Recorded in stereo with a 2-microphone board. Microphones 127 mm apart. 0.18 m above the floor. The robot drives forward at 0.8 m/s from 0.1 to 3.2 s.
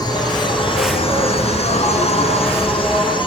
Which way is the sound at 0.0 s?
35° left (ahead or behind).